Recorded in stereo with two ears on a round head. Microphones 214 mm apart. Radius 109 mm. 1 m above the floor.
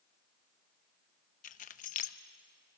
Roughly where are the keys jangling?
Left.